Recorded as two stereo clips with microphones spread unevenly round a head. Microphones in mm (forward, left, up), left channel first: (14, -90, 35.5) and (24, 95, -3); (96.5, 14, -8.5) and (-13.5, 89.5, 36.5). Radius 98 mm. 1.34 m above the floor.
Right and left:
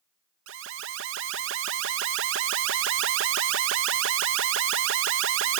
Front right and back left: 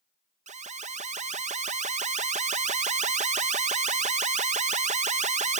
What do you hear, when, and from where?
0.5 s an alarm: 110° left